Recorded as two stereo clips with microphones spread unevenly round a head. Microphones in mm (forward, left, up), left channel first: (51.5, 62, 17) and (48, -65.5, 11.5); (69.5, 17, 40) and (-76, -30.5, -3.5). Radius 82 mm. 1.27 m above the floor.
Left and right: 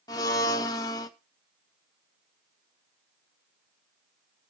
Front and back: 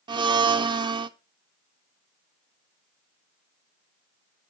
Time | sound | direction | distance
0.1 | a blender | 155° left | 0.6 m